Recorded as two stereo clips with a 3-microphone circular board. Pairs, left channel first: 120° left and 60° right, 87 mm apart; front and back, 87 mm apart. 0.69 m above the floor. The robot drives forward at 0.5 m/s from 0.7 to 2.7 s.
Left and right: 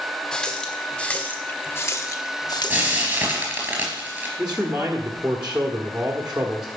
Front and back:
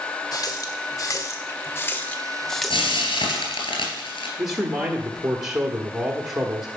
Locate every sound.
0.3 s a running tap: 40° left, 1.3 m; by 3.7 s 90° left, 0.9 m
2.7 s frying: 15° left, 3 m
4.4 s a man speaking: 135° right, 1.2 m